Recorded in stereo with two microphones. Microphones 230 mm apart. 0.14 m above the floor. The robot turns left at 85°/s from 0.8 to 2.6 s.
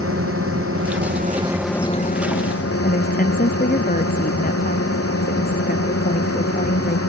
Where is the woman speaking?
35° left (ahead or behind).